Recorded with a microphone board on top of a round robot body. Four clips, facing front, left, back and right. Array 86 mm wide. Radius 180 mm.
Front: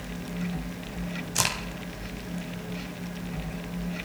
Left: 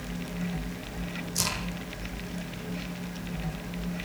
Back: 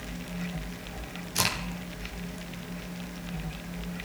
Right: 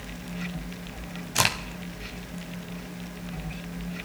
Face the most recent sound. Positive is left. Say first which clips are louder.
# right 9 dB, even
turn(degrees=-80)